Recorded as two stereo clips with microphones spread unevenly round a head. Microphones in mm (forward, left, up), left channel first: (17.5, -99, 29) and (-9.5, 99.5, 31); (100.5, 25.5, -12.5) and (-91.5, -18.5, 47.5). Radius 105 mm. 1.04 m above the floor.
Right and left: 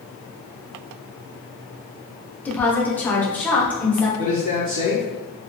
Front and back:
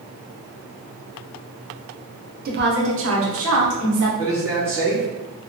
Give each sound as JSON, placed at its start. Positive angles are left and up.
{"t": 2.5, "sound": "a woman speaking", "azimuth_deg": -155, "distance_m": 0.7}
{"t": 4.2, "sound": "a man speaking", "azimuth_deg": 110, "distance_m": 1.7}